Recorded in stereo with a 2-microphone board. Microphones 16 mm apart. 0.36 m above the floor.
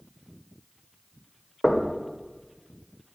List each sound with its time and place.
1.6 s knocking: 15° left (ahead or behind), 1.2 m